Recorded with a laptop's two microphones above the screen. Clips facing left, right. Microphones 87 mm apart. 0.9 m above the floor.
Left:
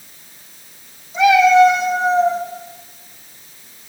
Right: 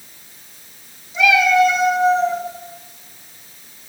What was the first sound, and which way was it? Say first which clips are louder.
A cat meowing: left 4 dB; 30° left (ahead or behind).